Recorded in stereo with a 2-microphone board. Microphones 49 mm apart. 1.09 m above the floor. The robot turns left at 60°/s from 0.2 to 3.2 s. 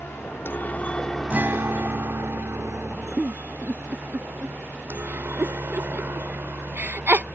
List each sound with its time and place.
0.0 s a helicopter: 60° left (ahead or behind); by 7.4 s 50° right (ahead or behind)
1.3 s a guitar: 35° right; by 3.1 s 145° right
3.2 s a giggle: 45° right (ahead or behind)